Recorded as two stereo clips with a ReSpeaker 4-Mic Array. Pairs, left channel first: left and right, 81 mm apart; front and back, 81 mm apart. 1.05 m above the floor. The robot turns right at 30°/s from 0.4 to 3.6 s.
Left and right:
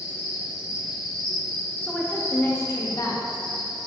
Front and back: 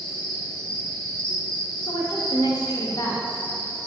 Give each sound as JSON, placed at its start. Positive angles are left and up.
{"t": 0.0, "sound": "an insect", "azimuth_deg": -25, "distance_m": 0.7}
{"t": 1.9, "sound": "a woman speaking", "azimuth_deg": 15, "distance_m": 0.5}